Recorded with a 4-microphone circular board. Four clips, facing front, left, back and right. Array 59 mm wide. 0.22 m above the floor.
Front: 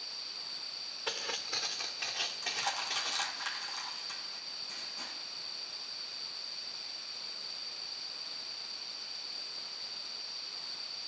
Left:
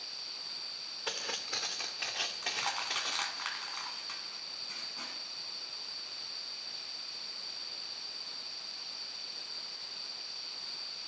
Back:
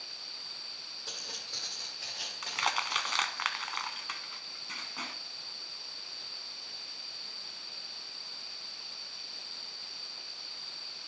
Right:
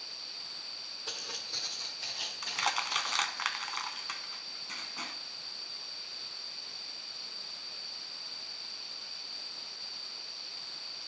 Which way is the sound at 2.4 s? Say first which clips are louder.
Right 5 dB, back 6 dB; 150° right.